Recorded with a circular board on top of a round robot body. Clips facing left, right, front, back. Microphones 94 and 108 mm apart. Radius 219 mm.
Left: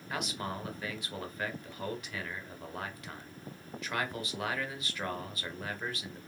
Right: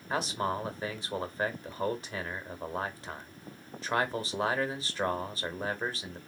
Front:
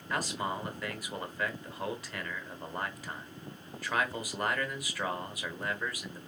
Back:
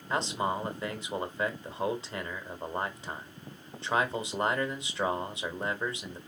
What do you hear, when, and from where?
0.1 s a man speaking: 130° right, 1.1 m